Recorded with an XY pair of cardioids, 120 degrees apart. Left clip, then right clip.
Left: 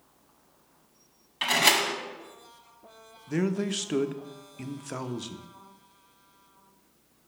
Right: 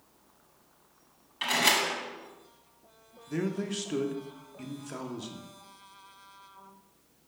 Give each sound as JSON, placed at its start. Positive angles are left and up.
{"t": 1.4, "sound": "a door slam", "azimuth_deg": 25, "distance_m": 1.3}
{"t": 3.3, "sound": "a man speaking", "azimuth_deg": 30, "distance_m": 0.7}